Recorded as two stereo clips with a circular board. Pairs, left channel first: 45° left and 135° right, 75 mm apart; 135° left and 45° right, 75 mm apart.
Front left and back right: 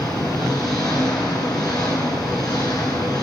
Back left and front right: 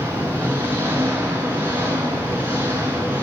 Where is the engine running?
15° left, 7 m.